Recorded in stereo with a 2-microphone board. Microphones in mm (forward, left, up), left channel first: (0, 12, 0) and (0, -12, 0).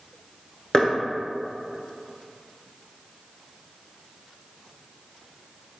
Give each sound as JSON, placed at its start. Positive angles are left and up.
{"t": 0.7, "sound": "knocking", "side_deg": 30, "distance_m": 0.9}